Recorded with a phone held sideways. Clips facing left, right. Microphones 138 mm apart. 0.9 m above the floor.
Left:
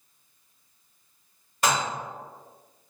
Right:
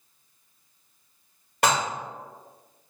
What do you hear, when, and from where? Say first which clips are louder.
1.6 s dishes clattering: right 2 dB; 70° right (ahead or behind), 1.2 m